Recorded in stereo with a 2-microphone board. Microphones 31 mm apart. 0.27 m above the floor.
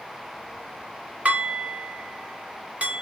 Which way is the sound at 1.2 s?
55° right (ahead or behind).